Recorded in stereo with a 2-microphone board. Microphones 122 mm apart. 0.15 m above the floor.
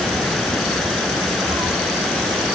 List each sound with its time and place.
1.5 s a cat meowing: 35° right (ahead or behind), 1.2 m